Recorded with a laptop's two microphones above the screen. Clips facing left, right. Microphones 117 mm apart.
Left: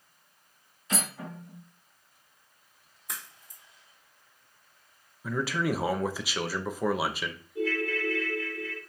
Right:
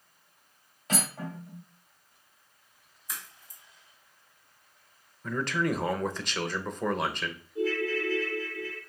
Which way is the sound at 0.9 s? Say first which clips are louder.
Right 2 dB; 65° right (ahead or behind).